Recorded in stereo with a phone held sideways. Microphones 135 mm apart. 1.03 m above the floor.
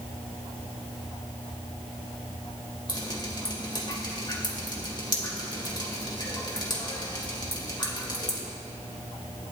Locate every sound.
2.9 s dripping: 35° left (ahead or behind), 2.5 m